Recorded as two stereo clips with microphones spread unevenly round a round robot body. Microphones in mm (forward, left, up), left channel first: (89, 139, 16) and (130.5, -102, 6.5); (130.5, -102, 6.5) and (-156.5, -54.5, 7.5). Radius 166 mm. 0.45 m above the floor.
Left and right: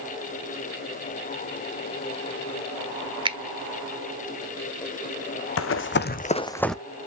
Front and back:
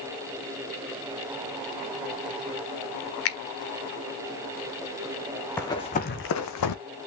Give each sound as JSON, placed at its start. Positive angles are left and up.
{"t": 3.2, "sound": "a finger snap", "azimuth_deg": -20, "distance_m": 1.4}
{"t": 5.6, "sound": "running footsteps", "azimuth_deg": 75, "distance_m": 1.3}